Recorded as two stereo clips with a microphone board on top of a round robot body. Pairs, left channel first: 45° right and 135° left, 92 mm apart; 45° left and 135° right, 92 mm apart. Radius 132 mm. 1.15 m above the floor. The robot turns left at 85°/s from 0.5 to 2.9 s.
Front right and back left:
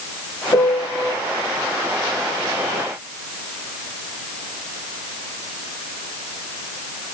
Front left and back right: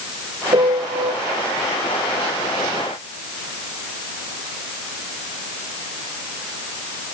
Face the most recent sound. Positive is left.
turn(degrees=55)